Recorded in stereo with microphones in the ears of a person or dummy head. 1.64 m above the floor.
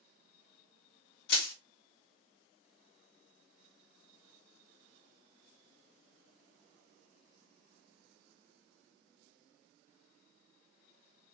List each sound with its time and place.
1.3 s crushing: 65° left (ahead or behind), 1.3 m